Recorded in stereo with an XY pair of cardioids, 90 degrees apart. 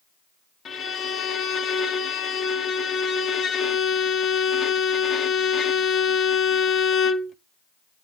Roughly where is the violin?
Ahead left.